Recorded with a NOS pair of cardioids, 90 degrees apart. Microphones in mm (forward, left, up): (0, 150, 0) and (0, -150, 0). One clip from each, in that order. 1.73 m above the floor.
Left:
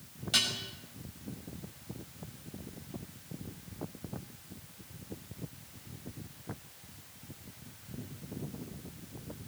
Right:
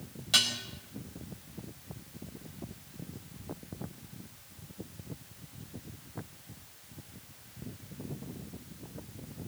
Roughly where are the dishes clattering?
Ahead right.